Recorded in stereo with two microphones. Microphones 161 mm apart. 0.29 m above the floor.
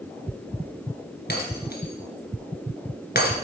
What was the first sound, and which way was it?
Breaking glass, 75° left (ahead or behind).